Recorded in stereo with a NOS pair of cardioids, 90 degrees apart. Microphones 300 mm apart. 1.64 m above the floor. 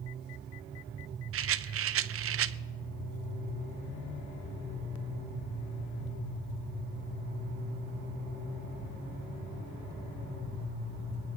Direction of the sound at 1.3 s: 50° right.